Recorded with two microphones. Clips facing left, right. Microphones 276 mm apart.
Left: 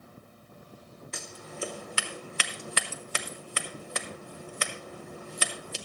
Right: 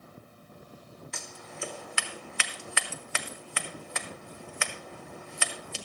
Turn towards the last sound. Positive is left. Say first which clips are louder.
# left 6 dB
turn(degrees=40)  # may be behind; listen again after turning